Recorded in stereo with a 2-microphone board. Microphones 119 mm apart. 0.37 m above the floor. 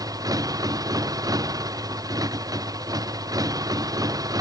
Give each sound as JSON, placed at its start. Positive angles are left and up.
{"t": 0.0, "sound": "a motorcycle", "side_deg": -30}